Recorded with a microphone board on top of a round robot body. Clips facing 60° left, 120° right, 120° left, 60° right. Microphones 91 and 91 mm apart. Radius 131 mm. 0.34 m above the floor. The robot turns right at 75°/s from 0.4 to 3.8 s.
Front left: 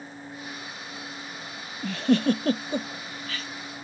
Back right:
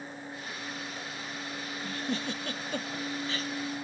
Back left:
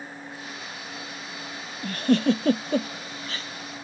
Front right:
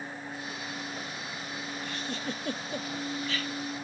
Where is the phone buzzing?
I don't hear a phone buzzing.